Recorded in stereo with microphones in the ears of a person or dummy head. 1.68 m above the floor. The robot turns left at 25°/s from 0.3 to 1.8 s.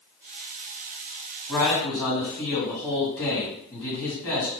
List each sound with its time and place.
1.5 s a man speaking: 15° left (ahead or behind), 1.8 m; by 4.5 s 20° left (ahead or behind), 1.8 m